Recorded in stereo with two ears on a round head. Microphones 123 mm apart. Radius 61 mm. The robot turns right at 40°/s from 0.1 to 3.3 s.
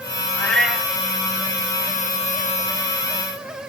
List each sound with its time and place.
0.4 s a cat meowing: 15° left (ahead or behind), 2.5 m; by 0.9 s 5° right (ahead or behind), 2.5 m